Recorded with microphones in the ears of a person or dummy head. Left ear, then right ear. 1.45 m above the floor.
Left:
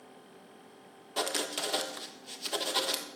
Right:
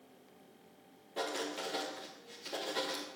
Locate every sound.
1.2 s writing: 45° left (ahead or behind), 1.4 m